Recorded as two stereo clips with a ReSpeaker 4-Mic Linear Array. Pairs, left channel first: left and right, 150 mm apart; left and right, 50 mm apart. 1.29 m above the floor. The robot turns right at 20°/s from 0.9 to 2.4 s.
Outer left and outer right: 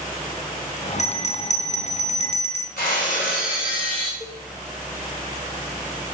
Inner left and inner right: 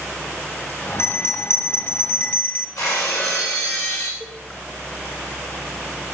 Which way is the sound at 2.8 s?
80° left.